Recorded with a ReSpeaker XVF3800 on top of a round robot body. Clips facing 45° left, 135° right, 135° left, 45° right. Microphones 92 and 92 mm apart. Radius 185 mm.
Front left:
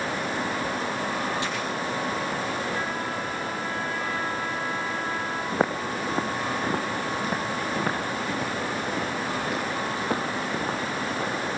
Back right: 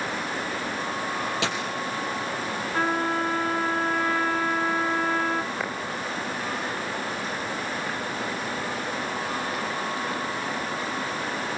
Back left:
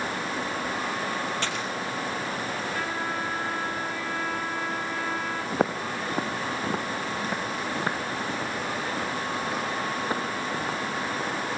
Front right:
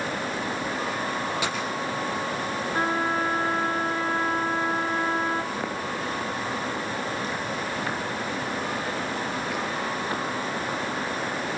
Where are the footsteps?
100° left, 3.5 m; by 11.3 s 65° left, 9.5 m.